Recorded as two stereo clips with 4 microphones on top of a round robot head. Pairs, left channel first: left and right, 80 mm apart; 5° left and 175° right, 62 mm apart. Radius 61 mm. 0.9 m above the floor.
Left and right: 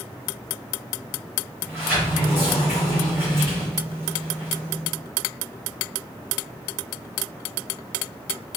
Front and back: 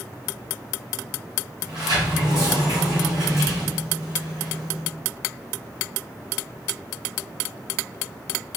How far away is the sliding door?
About 2.5 m.